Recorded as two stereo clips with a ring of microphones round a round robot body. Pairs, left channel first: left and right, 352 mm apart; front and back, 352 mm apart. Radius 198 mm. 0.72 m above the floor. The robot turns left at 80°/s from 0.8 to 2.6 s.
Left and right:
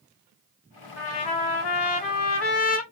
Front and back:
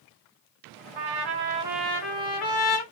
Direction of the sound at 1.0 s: 155° left.